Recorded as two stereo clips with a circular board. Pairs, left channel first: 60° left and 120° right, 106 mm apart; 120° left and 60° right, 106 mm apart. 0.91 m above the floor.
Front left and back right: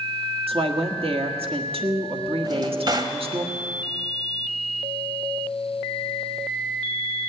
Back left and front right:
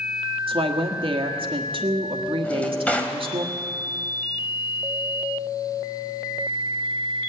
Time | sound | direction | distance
0.5 | a woman speaking | 90° right | 1.5 m
2.4 | a drawer | 165° right | 1.2 m